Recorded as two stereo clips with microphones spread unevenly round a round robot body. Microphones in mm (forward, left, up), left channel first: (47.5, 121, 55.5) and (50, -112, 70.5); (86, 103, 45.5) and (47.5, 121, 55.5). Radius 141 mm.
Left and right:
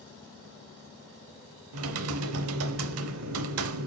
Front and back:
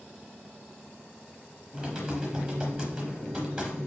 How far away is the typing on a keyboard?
About 0.8 m.